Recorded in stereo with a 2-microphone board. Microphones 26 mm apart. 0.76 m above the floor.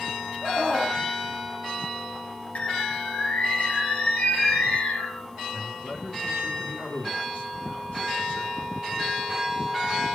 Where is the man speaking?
70° left (ahead or behind), 6.5 m.